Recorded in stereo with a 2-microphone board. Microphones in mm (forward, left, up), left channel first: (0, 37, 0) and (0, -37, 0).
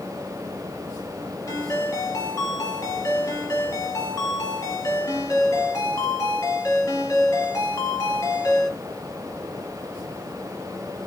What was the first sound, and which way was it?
A ringtone, 45° left (ahead or behind).